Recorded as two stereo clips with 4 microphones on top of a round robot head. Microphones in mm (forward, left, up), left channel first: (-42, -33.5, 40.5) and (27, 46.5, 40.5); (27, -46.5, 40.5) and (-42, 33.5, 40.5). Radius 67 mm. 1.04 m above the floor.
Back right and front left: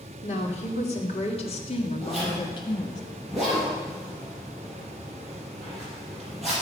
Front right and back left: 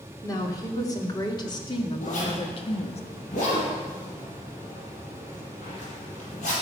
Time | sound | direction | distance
0.2 | a woman speaking | 110° right | 3 m
2.0 | a zipper | 40° right | 6.5 m